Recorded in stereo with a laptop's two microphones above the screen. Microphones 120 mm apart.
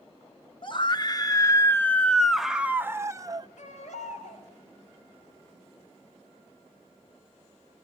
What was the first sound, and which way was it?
A scream, 45° left (ahead or behind).